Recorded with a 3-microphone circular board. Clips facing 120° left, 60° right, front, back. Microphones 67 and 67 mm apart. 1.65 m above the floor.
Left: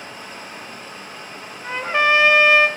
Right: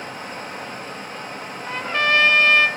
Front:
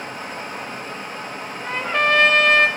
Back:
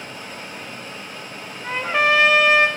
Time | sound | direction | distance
0.0 | running water | 25° right | 1.4 m
1.6 | a trumpet | 110° left | 0.8 m